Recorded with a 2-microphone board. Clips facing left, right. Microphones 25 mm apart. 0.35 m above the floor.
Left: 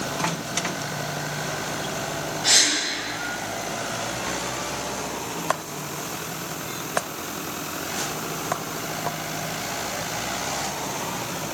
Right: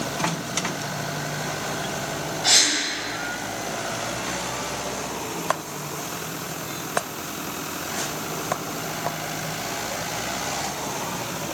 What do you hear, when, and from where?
2.4 s a gasp: centre (ahead or behind), 1.8 m